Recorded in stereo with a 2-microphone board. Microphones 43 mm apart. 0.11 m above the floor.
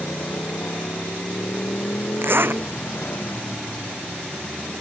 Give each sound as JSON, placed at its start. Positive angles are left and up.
{"t": 0.0, "sound": "a motorcycle", "side_deg": 80}
{"t": 2.2, "sound": "a zipper", "side_deg": -55}